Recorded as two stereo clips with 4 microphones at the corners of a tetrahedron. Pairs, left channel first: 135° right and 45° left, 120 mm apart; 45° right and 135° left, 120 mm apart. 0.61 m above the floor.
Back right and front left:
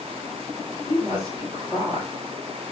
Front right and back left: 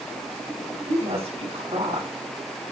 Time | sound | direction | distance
0.9 | a woman speaking | 115° left | 6 m